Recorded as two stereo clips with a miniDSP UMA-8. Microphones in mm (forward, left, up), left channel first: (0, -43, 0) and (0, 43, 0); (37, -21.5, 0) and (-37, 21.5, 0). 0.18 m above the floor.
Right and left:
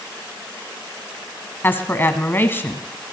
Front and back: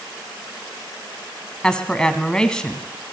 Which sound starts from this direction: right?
A woman speaking, at 1.6 s.